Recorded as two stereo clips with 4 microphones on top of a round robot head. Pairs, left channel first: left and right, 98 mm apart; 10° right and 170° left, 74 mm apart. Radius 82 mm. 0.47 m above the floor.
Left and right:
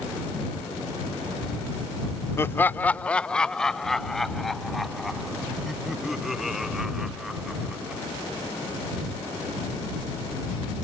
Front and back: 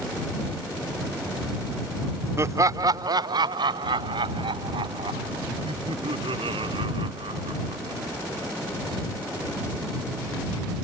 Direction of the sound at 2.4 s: 140° left.